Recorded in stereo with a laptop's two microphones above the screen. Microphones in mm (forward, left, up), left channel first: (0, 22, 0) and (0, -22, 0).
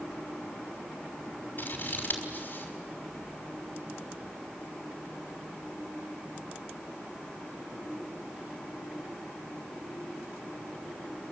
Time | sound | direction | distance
1.6 | scissors | 40° left (ahead or behind) | 5.5 m